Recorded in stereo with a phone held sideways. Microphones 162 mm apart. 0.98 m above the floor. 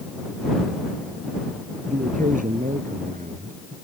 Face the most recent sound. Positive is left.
turn(degrees=-60)  # may be behind; listen again after turning